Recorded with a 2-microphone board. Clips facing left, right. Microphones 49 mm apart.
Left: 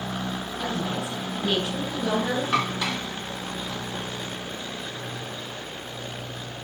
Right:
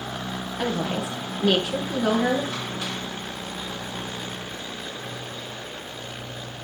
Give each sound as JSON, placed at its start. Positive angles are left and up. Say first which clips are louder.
{"t": 0.6, "sound": "a woman speaking", "louder": "right 4 dB", "side_deg": -85, "distance_m": 8.5}
{"t": 2.5, "sound": "dishes clattering", "louder": "left 5 dB", "side_deg": 80, "distance_m": 2.5}